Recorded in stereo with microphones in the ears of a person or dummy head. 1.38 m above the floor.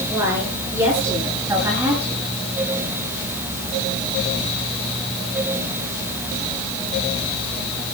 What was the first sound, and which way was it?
A woman speaking, 15° right (ahead or behind).